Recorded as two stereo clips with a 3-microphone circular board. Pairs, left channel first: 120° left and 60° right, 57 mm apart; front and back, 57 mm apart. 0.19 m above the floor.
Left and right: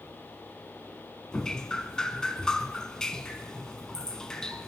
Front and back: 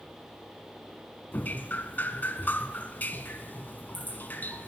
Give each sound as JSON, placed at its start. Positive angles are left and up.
{"t": 1.3, "sound": "dripping", "azimuth_deg": 45, "distance_m": 0.8}